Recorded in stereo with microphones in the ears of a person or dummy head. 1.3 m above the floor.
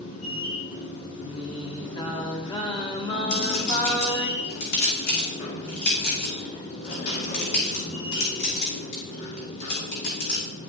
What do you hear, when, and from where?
0.0 s a machine running: 80° left, 2 m
1.2 s singing: 30° left (ahead or behind), 1.3 m
3.3 s a clink: 55° left (ahead or behind), 3 m